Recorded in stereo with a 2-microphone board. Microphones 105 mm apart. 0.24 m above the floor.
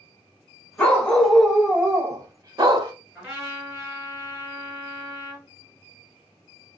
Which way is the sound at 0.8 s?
15° left (ahead or behind).